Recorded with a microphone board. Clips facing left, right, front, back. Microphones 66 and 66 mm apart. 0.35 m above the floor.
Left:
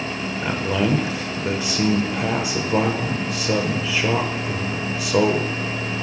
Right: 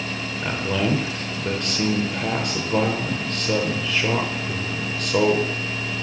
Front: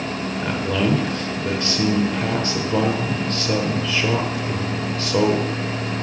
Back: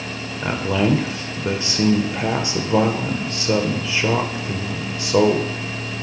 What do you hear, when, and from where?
0.4 s a man speaking: 155° left, 0.8 m